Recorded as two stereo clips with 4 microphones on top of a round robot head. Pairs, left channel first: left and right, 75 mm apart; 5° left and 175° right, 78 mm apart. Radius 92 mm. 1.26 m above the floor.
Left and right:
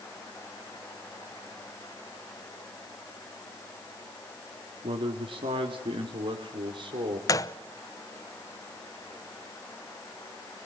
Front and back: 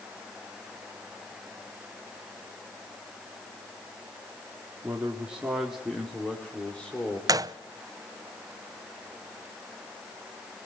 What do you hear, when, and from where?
4.8 s a man speaking: 100° right, 2.5 m; by 7.2 s 70° right, 3.5 m
7.3 s a gunshot: 140° left, 0.9 m